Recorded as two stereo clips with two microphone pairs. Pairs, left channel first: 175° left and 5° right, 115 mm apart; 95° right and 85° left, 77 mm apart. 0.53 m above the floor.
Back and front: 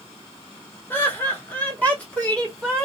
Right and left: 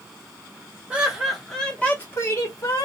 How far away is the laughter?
About 0.9 m.